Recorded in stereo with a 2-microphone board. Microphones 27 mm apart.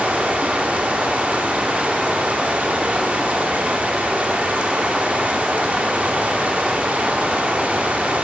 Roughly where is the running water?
Right.